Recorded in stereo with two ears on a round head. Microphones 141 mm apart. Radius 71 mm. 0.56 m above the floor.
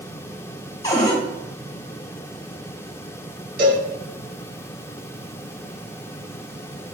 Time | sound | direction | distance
0.8 | a cupboard door | 20° left (ahead or behind) | 1.2 m
3.6 | a cowbell | 70° right (ahead or behind) | 1.9 m